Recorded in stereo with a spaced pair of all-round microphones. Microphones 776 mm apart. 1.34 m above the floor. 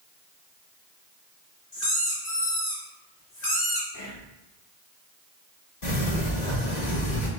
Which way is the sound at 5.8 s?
60° left (ahead or behind).